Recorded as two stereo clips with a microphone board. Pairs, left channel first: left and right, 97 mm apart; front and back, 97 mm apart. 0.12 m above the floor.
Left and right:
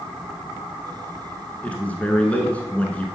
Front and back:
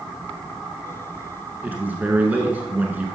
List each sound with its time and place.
1.6 s a man speaking: 140° left, 1.1 m